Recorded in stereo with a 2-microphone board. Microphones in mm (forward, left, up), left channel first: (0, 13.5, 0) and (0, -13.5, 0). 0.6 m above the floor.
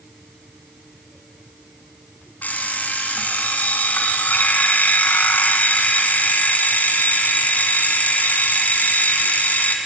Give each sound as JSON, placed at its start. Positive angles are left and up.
{"t": 2.4, "sound": "an alarm clock", "side_deg": 80, "distance_m": 3.0}